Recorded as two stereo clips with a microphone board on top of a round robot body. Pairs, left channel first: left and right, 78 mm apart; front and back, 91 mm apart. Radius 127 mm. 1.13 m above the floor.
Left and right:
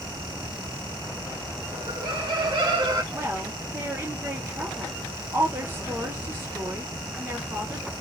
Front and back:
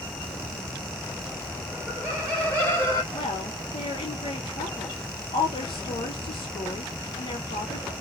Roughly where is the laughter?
Right.